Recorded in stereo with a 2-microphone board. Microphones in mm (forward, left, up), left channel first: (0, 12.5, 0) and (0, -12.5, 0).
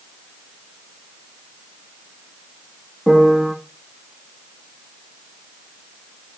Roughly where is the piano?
Centre.